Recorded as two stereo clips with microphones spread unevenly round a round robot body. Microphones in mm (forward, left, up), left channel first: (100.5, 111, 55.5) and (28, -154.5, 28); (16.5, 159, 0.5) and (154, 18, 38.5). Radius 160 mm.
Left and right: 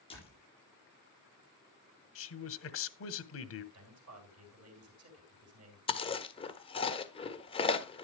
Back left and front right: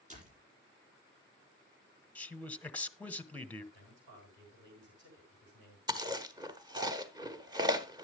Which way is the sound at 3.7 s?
95° right.